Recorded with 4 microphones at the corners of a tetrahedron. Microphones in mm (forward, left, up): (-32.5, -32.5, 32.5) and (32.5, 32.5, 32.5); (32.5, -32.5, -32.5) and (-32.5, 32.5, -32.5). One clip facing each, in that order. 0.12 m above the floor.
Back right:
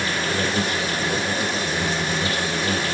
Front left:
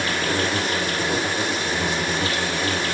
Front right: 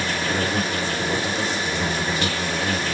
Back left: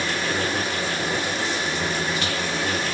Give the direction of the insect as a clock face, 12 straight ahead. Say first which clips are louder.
Front left 1 dB, front right 1 dB; 12 o'clock.